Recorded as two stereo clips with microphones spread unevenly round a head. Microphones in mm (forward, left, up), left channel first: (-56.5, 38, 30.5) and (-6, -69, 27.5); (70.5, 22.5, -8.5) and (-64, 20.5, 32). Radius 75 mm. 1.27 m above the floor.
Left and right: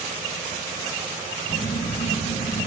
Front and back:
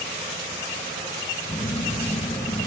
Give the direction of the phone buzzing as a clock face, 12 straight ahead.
10 o'clock.